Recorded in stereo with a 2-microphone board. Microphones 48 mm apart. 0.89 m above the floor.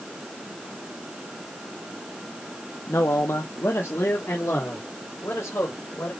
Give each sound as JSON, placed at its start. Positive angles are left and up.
{"t": 2.9, "sound": "a man speaking", "side_deg": 65, "distance_m": 0.8}